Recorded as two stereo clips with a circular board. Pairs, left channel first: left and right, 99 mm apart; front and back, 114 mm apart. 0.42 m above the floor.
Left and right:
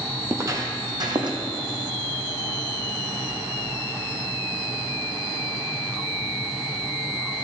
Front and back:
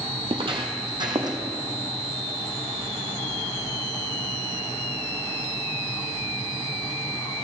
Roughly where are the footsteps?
Behind right.